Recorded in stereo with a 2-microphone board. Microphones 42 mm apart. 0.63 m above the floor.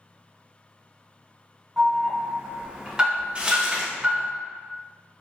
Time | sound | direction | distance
1.8 | an alarm | 15° right (ahead or behind) | 1.2 m
3.4 | crumpling | 20° right (ahead or behind) | 1.5 m